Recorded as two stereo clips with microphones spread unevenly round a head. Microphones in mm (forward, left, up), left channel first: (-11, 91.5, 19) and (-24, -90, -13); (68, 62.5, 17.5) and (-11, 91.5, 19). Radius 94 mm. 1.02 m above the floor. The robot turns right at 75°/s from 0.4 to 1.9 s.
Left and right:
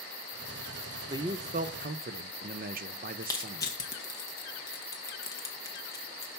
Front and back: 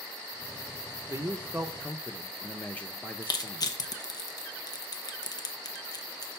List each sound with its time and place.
1.1 s a man speaking: 155° right, 0.5 m; by 3.8 s 95° right, 0.5 m
3.2 s crushing: 10° left, 0.9 m